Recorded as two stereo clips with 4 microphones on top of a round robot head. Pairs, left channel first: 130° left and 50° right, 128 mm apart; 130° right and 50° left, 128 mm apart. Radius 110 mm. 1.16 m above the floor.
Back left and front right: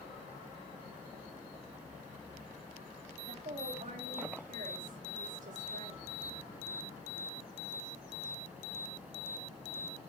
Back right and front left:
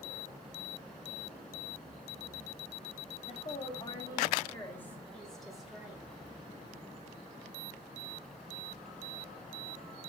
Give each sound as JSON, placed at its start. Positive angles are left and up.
{"t": 3.3, "sound": "a woman speaking", "azimuth_deg": -90, "distance_m": 1.6}